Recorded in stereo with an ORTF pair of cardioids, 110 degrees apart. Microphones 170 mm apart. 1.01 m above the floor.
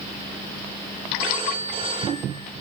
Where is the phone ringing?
30° right, 5 m.